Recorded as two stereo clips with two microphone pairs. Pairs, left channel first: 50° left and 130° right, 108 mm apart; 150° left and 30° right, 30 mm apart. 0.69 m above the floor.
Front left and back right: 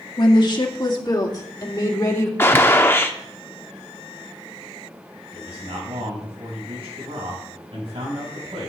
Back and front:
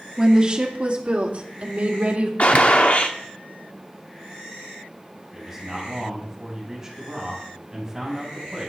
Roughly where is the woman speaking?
Ahead left.